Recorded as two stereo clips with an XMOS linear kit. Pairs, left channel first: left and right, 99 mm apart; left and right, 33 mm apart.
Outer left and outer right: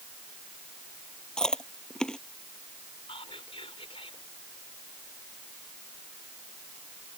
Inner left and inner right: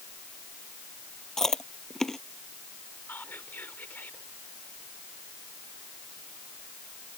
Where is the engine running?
I don't hear an engine running.